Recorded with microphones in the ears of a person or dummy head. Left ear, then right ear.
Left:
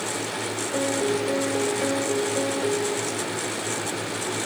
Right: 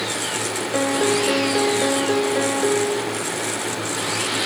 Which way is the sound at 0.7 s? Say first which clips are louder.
Right 5 dB; 40° right (ahead or behind).